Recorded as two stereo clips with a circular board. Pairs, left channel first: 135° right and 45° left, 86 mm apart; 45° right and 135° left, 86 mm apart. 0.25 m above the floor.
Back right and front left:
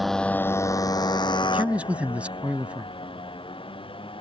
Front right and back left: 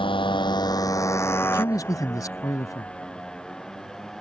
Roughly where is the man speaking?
Ahead right.